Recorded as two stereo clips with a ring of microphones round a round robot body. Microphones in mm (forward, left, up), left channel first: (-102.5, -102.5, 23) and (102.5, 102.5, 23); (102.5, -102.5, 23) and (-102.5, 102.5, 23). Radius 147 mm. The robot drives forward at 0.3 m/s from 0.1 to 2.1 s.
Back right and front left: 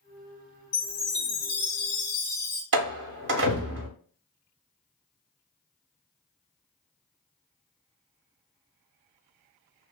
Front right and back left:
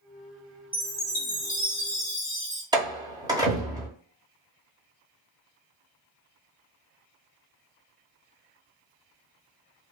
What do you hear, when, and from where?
0.7 s a chime: 140° right, 0.9 m; by 2.6 s 155° right, 1.3 m
2.7 s a door slam: 65° left, 0.6 m